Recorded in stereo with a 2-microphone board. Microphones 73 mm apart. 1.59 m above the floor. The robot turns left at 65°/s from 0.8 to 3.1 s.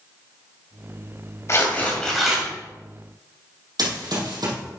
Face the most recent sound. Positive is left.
turn(degrees=-65)  # may be behind; listen again after turning